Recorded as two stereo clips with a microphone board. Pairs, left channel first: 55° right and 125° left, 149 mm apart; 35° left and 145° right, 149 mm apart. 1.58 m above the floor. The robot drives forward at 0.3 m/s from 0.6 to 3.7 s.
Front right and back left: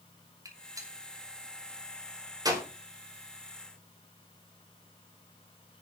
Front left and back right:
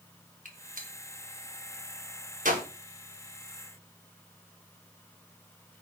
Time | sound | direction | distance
0.5 | a gunshot | 170° right | 2.5 m